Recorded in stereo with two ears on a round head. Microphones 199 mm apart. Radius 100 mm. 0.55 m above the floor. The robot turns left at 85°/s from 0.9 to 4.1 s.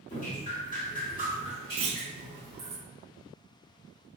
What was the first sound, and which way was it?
Dripping, 105° left.